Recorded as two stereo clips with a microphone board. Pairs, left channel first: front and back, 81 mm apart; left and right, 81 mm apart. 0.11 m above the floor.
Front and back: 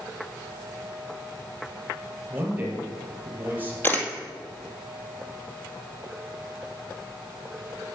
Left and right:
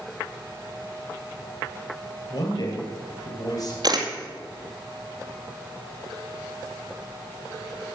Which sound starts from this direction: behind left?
A man speaking, at 2.3 s.